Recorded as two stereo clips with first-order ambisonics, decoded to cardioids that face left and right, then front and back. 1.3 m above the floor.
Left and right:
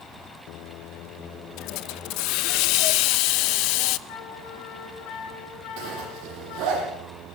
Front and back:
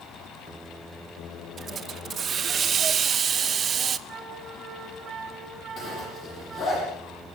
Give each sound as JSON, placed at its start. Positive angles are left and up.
{"t": 1.6, "sound": "a hiss", "azimuth_deg": 115, "distance_m": 0.8}
{"t": 4.1, "sound": "a flute", "azimuth_deg": 110, "distance_m": 8.5}
{"t": 5.8, "sound": "a zipper", "azimuth_deg": -55, "distance_m": 9.5}